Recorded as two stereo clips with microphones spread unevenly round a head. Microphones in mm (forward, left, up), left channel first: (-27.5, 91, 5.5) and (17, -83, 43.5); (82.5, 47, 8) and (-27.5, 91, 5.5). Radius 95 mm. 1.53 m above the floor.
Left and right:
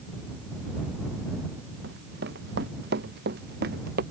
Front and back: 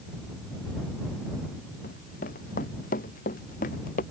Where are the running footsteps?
40° right.